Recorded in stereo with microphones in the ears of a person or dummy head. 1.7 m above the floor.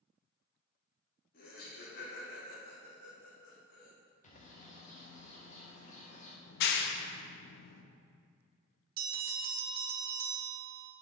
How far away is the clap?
About 0.8 m.